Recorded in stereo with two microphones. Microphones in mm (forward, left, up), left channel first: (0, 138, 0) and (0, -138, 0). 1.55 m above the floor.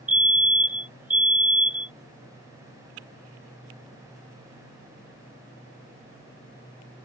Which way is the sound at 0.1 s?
30° right (ahead or behind).